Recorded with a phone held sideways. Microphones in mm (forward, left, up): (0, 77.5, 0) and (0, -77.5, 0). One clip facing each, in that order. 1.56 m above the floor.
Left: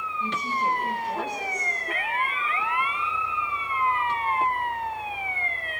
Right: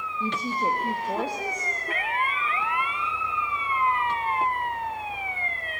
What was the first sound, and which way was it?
A woman speaking, 35° right (ahead or behind).